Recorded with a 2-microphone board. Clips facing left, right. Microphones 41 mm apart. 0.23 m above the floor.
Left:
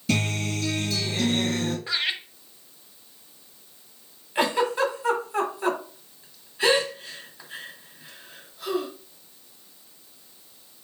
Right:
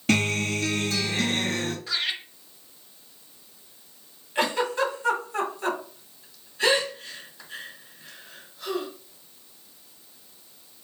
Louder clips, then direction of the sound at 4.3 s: Left 2 dB; 10° left (ahead or behind).